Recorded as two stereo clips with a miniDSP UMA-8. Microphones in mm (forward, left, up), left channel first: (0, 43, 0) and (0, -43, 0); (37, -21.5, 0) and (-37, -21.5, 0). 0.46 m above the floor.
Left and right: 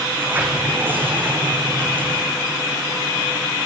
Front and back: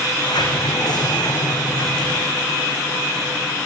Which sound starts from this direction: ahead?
A sliding door, at 0.1 s.